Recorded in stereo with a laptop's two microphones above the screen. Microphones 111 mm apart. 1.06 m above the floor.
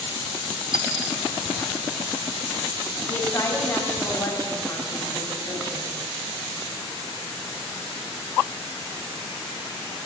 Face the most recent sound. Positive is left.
turn(degrees=40)  # may be behind; listen again after turning